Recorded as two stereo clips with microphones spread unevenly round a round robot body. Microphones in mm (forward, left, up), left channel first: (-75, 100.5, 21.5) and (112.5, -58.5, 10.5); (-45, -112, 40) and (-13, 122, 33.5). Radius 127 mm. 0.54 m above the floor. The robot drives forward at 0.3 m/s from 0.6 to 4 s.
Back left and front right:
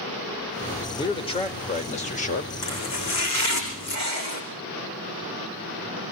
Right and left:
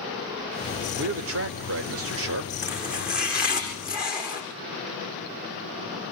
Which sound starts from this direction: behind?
Chopping, at 2.6 s.